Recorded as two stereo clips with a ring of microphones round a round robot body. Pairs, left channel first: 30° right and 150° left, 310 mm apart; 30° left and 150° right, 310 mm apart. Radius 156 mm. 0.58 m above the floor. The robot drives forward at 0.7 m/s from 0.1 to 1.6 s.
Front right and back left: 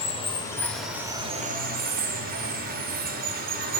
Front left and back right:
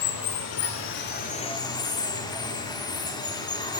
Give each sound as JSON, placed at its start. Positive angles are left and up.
{"t": 0.0, "sound": "running water", "azimuth_deg": 40, "distance_m": 1.4}